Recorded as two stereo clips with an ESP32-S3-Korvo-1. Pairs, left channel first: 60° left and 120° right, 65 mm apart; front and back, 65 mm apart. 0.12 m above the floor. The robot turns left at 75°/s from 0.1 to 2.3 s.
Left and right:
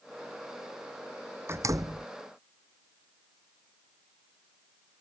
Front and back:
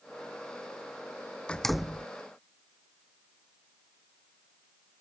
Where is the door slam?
75° right; by 2.1 s 115° right.